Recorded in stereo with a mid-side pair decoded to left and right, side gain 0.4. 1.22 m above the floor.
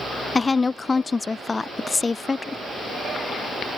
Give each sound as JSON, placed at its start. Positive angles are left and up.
{"t": 0.3, "sound": "a woman speaking", "azimuth_deg": 30}